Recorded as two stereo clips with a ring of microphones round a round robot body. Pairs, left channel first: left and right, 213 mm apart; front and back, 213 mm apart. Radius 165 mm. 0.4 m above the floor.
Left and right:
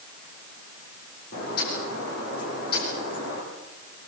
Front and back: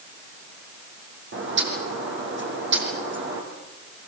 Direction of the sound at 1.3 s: 150° left.